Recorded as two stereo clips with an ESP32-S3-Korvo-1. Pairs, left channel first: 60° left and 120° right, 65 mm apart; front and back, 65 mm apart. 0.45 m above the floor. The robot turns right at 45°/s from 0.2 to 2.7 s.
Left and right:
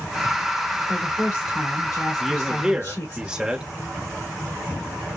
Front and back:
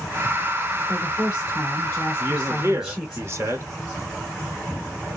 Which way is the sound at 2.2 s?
145° left.